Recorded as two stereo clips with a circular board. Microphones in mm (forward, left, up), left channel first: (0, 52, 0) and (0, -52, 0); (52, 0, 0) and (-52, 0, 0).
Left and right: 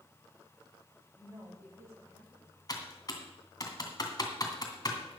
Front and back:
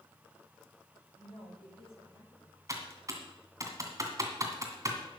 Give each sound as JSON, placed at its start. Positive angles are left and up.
{"t": 1.1, "sound": "a woman speaking", "azimuth_deg": -25, "distance_m": 8.0}
{"t": 2.7, "sound": "typing on a keyboard", "azimuth_deg": 130, "distance_m": 2.0}